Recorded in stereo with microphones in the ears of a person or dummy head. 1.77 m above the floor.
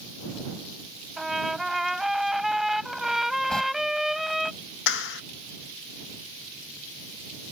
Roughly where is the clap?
Left.